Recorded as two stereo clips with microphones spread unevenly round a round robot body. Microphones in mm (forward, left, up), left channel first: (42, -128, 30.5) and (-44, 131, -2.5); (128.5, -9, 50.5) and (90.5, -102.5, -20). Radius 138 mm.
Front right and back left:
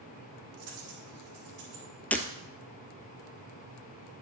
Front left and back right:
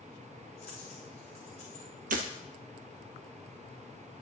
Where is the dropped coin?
130° left, 6 m.